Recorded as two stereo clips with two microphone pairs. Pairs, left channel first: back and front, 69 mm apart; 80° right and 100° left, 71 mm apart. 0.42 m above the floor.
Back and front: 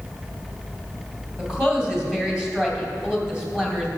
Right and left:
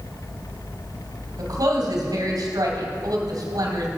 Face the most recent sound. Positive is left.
turn(degrees=80)